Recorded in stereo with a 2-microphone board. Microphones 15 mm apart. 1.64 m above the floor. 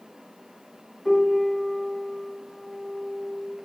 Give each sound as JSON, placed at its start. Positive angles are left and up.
{"t": 1.1, "sound": "a piano", "side_deg": 10, "distance_m": 0.6}